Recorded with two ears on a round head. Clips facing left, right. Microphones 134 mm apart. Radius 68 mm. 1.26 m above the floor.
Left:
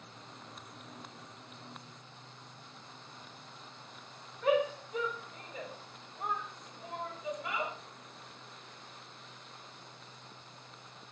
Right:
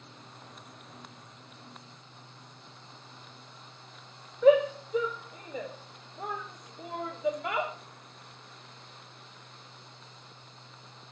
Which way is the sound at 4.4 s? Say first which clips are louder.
Right 8 dB; 60° right (ahead or behind).